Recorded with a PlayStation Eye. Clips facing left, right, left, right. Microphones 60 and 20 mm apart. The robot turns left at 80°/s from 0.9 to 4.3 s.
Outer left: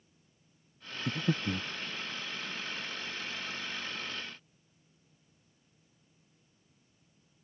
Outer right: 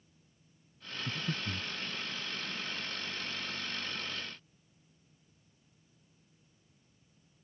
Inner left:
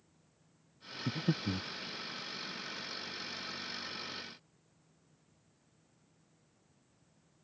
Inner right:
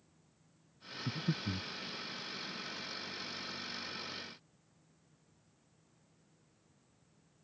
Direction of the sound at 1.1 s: 80° left.